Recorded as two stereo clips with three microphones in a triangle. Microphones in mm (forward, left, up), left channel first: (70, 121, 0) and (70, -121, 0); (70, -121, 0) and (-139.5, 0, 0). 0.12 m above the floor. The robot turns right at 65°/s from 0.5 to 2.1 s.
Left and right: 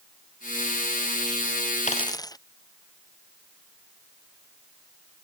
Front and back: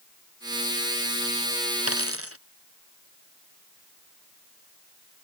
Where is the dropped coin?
150° left; by 2.4 s 165° left.